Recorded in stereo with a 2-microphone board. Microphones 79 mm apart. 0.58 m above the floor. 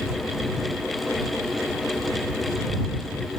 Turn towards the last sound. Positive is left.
No sound to turn to.